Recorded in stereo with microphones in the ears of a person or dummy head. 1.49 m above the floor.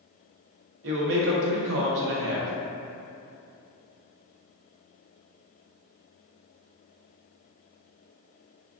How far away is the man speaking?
About 0.7 m.